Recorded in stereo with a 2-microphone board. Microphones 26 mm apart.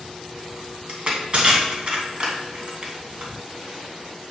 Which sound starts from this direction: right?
Crushing, at 0.9 s.